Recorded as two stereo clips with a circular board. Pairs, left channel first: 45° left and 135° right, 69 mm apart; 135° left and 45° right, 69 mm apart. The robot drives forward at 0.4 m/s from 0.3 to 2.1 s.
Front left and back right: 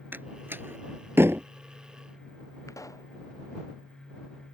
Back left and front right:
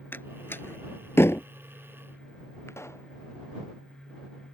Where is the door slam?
Straight behind.